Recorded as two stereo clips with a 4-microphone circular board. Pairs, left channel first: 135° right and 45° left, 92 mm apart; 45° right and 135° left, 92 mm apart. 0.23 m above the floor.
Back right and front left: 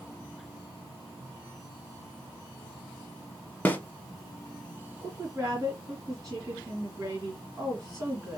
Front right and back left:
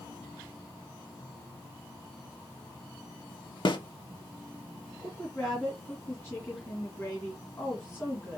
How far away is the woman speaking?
About 1.8 m.